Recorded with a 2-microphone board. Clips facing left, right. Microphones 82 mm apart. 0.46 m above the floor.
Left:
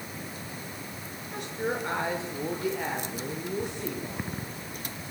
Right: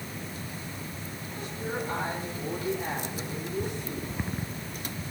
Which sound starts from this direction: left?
A woman speaking, at 1.3 s.